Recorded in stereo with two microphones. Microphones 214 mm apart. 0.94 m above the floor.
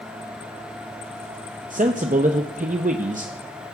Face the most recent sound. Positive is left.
turn(degrees=-35)  # may be behind; listen again after turning